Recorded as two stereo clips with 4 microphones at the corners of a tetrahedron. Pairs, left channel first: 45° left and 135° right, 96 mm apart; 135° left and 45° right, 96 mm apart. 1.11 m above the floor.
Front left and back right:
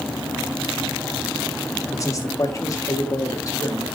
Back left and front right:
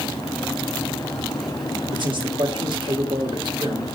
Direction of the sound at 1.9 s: 10° right.